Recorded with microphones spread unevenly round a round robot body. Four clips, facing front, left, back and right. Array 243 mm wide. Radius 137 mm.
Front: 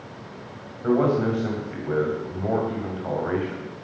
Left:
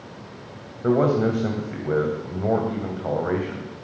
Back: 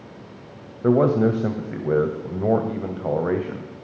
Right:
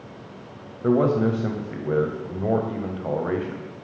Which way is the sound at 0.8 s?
175° right.